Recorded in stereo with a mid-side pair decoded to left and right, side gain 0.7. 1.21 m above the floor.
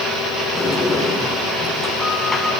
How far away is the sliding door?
About 7.5 m.